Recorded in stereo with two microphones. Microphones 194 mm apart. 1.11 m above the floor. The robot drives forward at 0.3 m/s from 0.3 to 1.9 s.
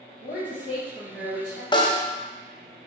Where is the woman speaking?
30° left (ahead or behind), 1.1 m; by 1.6 s 20° left (ahead or behind), 1.5 m.